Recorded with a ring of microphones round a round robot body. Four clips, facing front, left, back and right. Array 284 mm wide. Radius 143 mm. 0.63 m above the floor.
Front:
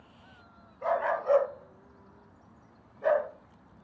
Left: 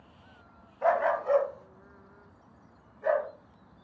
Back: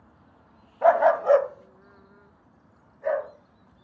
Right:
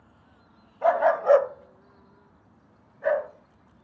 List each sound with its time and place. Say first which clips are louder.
0.8 s a dog barking: right 5 dB, back 10 dB; 170° right, 0.9 m; by 3.3 s 45° right, 2.5 m